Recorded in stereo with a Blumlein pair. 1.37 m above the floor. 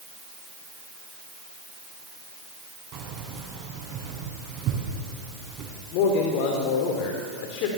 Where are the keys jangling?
30° right, 7 m.